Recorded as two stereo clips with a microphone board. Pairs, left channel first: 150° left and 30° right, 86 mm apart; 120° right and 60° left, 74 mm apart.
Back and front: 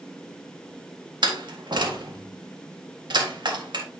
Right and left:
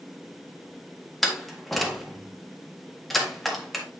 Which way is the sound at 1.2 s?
30° right.